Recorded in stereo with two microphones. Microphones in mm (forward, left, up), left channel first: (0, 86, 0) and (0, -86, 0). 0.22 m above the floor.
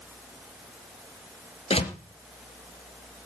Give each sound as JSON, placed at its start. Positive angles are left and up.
{"t": 1.7, "sound": "a door slam", "side_deg": 35, "distance_m": 3.0}